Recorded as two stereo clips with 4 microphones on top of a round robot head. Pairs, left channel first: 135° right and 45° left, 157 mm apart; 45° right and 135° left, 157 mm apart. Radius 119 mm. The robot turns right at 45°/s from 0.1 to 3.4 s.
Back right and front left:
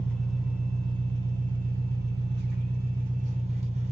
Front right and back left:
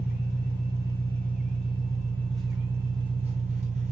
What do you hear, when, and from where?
0.0 s an engine running: 55° right, 1.1 m; by 3.9 s 95° left, 1.1 m